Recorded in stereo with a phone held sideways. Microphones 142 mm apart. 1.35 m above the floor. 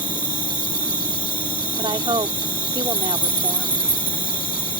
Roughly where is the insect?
Left.